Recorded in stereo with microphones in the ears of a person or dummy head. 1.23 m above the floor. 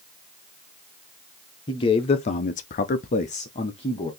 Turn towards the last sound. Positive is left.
turn(degrees=20)  # may be behind; listen again after turning